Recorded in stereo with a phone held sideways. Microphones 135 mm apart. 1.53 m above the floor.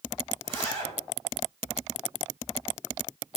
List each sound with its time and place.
0.4 s a zipper: 40° right (ahead or behind), 1.6 m